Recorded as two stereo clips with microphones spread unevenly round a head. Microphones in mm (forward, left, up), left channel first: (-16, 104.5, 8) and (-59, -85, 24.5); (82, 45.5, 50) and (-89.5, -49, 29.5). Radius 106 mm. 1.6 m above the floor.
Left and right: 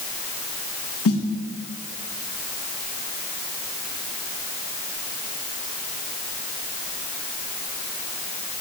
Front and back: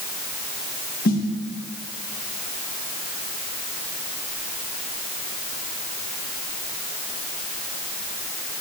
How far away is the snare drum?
About 2.5 m.